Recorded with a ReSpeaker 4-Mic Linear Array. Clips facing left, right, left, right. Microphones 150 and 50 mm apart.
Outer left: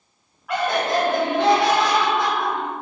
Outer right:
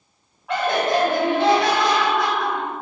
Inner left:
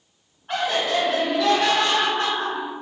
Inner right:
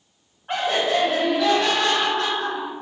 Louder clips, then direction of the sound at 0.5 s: Outer right 1 dB, inner right 1 dB; 25° right (ahead or behind).